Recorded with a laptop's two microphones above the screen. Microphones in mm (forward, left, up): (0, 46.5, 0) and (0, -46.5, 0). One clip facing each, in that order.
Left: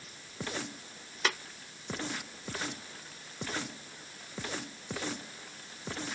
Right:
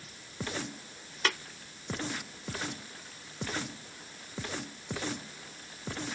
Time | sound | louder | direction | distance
1.2 | tapping | right 1 dB | 10° left (ahead or behind) | 0.7 m